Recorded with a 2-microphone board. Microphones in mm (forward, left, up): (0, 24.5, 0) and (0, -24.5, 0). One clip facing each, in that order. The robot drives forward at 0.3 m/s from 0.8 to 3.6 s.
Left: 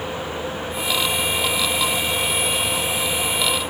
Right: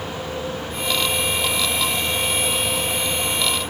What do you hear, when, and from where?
Only background noise.